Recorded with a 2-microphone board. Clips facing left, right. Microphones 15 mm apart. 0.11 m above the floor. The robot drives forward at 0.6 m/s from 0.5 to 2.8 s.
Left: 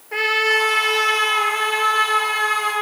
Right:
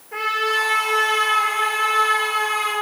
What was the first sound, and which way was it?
A trumpet, 40° left (ahead or behind).